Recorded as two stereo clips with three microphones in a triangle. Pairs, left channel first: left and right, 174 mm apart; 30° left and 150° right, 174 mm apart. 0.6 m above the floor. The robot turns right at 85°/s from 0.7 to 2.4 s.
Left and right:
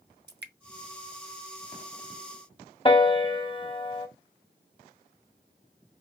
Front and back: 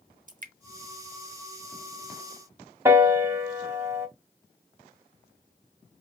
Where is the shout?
No shout in this recording.